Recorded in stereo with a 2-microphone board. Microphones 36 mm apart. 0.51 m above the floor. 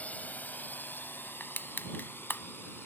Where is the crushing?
70° left (ahead or behind).